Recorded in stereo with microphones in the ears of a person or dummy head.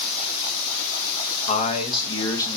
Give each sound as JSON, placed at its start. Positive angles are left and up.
{"t": 1.5, "sound": "a man speaking", "side_deg": 40, "distance_m": 1.6}